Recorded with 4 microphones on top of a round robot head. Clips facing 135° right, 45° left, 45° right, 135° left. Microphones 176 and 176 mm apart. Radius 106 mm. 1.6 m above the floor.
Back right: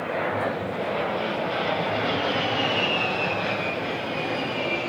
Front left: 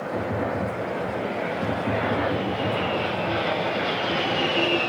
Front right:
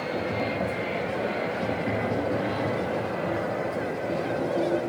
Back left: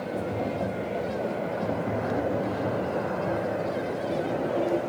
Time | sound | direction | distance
0.1 | tapping | 40° left | 1.2 m